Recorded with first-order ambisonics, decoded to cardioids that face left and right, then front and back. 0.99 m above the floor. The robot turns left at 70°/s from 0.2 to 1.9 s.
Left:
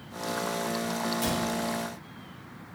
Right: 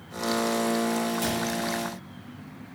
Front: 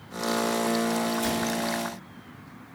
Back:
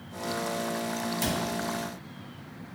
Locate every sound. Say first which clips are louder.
1.2 s a cupboard door: right 1 dB, front 2 dB; 165° right, 1.0 m; by 1.4 s 175° left, 1.0 m